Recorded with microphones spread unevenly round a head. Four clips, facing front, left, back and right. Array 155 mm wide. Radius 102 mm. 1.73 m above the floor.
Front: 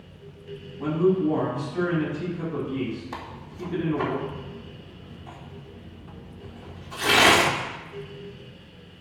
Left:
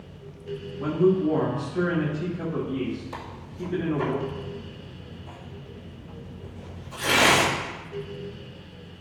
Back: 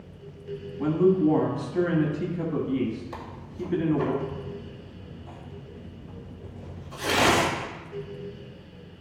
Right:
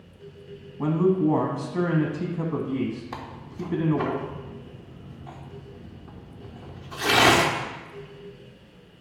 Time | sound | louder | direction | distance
0.8 | a man speaking | even, back 1 dB | 120° right | 1.3 m
3.1 | tearing paper | right 1 dB, even | 65° right | 1.6 m